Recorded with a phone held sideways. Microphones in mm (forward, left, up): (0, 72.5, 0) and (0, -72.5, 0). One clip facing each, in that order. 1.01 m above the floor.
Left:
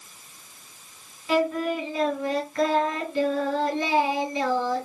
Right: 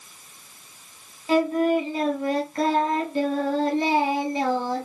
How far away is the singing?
About 1.6 m.